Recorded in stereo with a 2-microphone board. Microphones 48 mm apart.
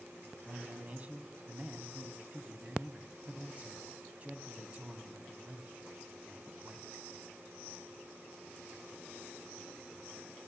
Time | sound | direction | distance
0.5 | a man speaking | 30° right (ahead or behind) | 3 m